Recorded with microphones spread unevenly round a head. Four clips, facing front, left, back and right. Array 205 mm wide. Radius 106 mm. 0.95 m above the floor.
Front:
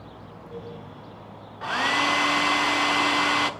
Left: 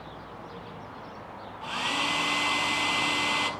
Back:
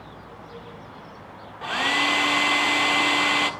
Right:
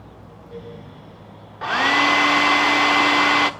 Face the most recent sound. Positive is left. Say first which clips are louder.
# right 13 dB, front 1 dB
turn(degrees=-100)